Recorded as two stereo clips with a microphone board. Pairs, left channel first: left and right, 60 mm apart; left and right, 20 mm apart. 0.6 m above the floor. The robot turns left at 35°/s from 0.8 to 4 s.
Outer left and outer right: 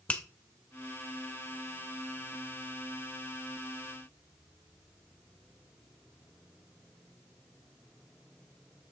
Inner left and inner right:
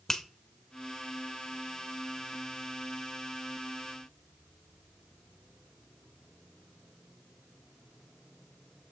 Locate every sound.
0.1 s a finger snap: 20° left (ahead or behind), 0.9 m